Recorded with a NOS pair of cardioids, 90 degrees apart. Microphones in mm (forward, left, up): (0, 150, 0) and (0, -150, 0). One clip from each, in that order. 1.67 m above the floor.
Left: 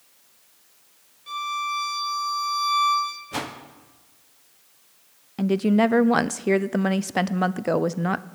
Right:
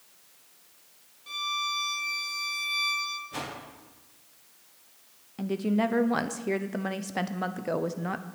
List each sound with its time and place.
1.3 s a violin: 5° left, 2.5 m
3.3 s a whoosh: 45° left, 1.4 m
5.4 s a woman speaking: 30° left, 0.5 m